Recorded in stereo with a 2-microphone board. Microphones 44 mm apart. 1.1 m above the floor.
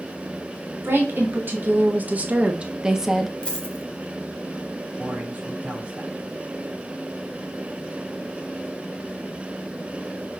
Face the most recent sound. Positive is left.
turn(degrees=-30)  # may be behind; listen again after turning